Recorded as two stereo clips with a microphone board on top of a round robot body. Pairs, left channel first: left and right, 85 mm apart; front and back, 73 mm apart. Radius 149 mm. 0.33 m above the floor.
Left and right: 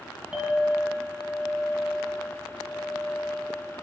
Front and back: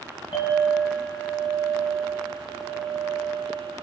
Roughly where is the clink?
Ahead.